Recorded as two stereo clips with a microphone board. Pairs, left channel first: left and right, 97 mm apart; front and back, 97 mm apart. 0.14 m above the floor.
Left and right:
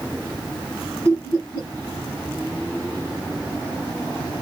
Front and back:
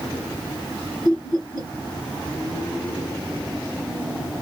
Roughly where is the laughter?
Left.